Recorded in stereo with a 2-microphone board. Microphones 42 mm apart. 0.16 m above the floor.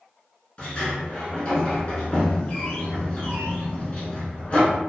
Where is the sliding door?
30° left (ahead or behind), 0.8 m.